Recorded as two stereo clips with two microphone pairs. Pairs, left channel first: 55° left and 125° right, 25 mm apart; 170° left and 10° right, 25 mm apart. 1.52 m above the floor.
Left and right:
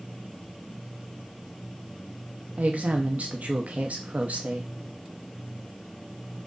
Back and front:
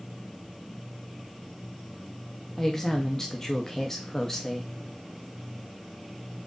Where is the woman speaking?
115° right, 0.8 m.